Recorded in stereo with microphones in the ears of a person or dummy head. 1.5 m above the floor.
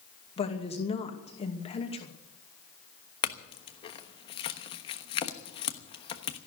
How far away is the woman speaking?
About 2.5 m.